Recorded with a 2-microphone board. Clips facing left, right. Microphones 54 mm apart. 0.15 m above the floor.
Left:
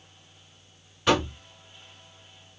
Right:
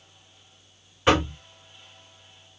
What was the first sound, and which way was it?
Knocking, 25° right (ahead or behind).